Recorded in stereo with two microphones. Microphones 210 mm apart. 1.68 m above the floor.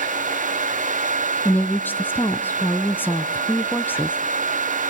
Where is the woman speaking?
10° left (ahead or behind), 0.6 m.